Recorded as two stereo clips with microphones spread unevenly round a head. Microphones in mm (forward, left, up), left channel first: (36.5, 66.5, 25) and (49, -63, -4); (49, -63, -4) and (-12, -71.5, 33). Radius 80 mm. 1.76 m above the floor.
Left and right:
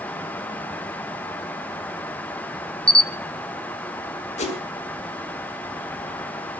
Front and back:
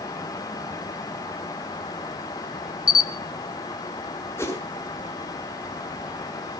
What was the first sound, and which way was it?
A camera shutter, 10° left.